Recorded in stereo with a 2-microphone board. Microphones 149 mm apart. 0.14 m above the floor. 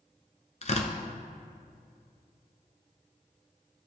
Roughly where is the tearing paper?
Left.